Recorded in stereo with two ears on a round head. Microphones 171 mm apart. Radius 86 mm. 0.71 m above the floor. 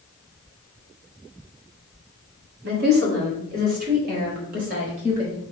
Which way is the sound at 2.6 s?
55° right (ahead or behind).